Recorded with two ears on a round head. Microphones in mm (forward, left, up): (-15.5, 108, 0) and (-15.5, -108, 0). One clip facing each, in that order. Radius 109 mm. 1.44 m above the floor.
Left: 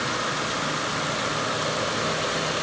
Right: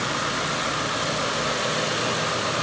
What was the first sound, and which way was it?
Only background noise.